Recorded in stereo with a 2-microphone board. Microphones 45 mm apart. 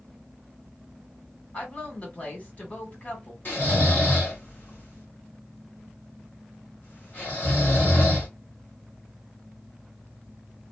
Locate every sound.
1.5 s a woman speaking: 30° left (ahead or behind), 1.5 m
3.5 s snoring: 45° left (ahead or behind), 2 m